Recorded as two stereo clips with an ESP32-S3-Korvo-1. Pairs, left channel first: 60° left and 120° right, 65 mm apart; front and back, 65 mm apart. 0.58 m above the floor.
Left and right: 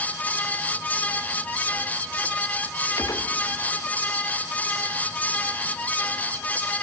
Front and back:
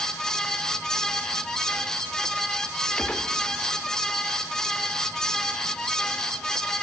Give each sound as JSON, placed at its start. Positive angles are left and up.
{"t": 3.0, "sound": "a gunshot", "azimuth_deg": 75, "distance_m": 0.9}